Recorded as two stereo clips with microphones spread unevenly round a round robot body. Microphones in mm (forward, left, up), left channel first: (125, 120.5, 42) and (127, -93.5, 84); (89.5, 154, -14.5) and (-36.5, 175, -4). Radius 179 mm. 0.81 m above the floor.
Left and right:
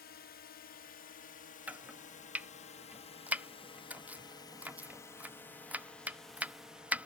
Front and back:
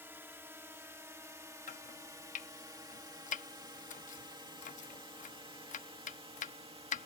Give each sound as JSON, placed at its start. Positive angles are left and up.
{"t": 0.0, "sound": "a drone", "azimuth_deg": 100}
{"t": 1.7, "sound": "chopping", "azimuth_deg": 0}